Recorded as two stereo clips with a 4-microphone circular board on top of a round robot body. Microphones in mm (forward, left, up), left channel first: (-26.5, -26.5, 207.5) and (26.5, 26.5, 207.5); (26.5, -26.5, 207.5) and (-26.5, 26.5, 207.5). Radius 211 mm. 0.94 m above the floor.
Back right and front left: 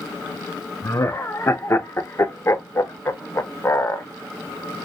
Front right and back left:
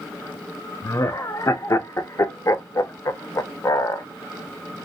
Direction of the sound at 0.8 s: 85° right.